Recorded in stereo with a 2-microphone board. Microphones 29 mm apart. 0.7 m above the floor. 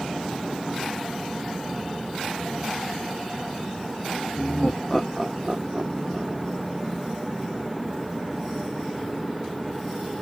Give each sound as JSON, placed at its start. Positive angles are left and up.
{"t": 4.4, "sound": "laughter", "side_deg": 30}